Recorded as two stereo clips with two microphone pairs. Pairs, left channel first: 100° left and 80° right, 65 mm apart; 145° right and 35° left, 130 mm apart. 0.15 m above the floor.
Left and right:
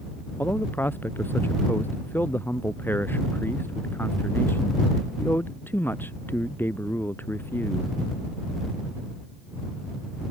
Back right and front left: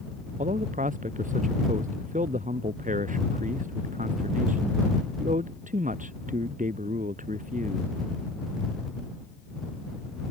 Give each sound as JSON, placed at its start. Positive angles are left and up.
{"t": 0.4, "sound": "a man speaking", "azimuth_deg": 40}